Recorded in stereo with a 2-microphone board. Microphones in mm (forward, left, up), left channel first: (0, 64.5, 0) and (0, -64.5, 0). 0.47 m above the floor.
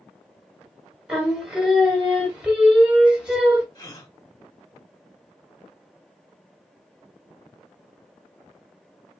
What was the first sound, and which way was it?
Singing, 10° right (ahead or behind).